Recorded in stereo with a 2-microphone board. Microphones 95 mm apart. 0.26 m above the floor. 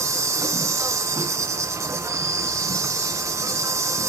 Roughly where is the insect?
Right.